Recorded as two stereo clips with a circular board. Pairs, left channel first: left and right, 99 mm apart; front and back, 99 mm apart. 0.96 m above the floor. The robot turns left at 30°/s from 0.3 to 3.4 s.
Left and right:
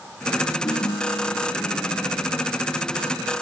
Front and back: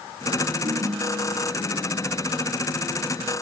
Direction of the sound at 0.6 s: 150° left.